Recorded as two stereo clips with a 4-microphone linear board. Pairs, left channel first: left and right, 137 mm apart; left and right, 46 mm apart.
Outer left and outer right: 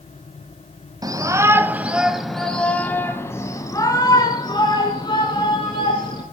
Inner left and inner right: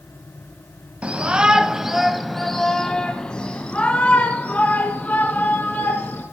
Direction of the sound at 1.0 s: 30° right (ahead or behind).